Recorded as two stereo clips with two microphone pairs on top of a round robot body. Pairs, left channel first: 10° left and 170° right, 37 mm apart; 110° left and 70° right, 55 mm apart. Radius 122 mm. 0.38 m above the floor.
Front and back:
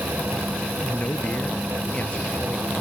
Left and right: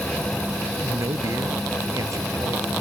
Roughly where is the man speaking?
Ahead right.